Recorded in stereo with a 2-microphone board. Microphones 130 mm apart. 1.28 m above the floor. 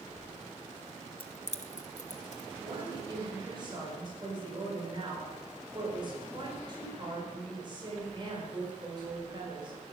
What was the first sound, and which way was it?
Keys jangling, 40° left (ahead or behind).